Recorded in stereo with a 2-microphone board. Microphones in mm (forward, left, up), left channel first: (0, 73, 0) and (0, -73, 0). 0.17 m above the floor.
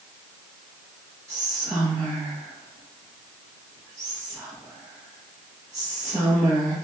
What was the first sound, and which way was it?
Whispering, 25° right (ahead or behind).